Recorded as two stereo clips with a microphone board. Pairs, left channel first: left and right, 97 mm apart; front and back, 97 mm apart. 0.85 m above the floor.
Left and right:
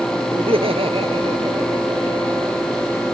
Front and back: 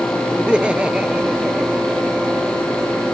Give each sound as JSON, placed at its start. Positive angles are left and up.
{"t": 0.3, "sound": "laughter", "azimuth_deg": -100}